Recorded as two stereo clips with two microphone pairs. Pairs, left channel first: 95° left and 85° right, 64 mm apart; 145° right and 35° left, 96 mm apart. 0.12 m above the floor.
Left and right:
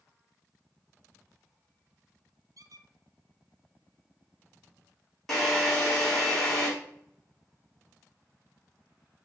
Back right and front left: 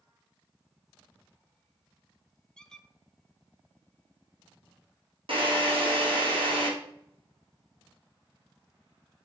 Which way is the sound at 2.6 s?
60° right.